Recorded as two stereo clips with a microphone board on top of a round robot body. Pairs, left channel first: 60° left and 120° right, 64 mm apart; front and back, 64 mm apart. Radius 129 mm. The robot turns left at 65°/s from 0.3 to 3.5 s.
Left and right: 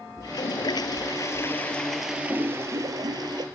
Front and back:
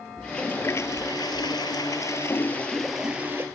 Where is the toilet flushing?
80° left; by 3.5 s 125° right.